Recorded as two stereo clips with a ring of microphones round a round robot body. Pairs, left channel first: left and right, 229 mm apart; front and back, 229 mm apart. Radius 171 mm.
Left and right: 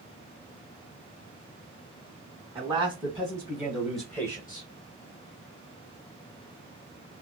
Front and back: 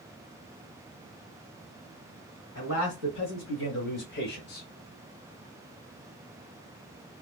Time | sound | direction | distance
2.5 | a man speaking | 20° right | 3 m